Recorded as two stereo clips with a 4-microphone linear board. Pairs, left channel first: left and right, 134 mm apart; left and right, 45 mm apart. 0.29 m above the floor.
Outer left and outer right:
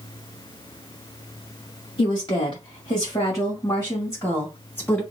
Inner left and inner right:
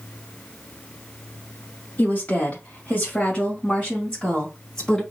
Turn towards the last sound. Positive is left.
turn(degrees=15)  # may be behind; listen again after turning